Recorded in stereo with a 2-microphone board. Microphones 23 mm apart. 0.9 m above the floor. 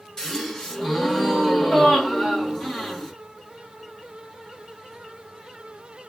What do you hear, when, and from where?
0.2 s a gasp: 25° left (ahead or behind), 1.3 m